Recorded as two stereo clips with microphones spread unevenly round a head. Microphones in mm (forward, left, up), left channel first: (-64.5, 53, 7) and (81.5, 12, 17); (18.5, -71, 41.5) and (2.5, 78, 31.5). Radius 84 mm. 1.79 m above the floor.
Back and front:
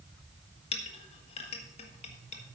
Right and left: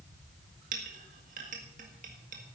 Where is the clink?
125° left, 1.4 m.